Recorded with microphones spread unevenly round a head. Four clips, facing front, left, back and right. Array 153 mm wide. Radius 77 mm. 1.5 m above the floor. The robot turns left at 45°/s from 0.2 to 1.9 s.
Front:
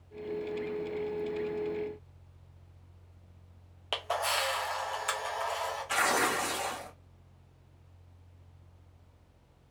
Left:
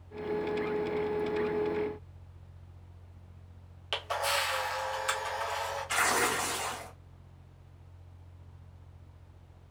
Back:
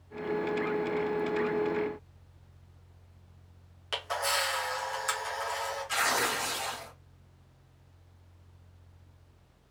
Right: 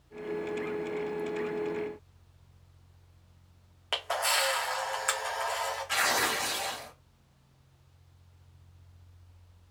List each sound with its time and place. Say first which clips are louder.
3.9 s a camera shutter: right 1 dB, even; 35° right, 0.7 m
5.9 s tearing paper: left 2 dB, front 2 dB; 10° left, 0.8 m